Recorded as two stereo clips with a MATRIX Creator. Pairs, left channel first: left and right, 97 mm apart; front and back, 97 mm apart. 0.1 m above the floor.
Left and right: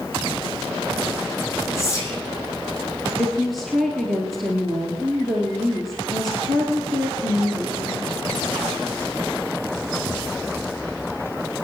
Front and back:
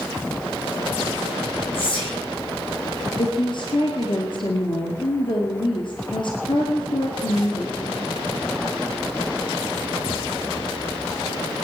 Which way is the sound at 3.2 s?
Straight ahead.